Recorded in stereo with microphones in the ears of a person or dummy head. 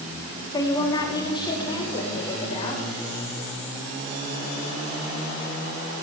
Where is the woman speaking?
15° left (ahead or behind), 3.5 m; by 2.8 s 25° left (ahead or behind), 7 m.